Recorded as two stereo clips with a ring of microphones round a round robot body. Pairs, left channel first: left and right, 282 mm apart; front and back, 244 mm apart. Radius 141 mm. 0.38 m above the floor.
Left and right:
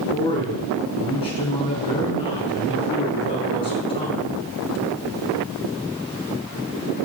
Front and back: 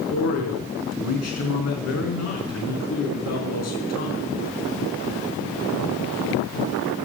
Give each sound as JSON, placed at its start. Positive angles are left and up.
{"t": 0.1, "sound": "a man speaking", "azimuth_deg": 20, "distance_m": 5.0}